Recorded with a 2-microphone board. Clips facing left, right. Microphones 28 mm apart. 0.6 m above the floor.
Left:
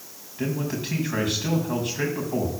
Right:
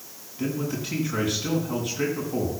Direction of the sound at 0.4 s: 75° left (ahead or behind).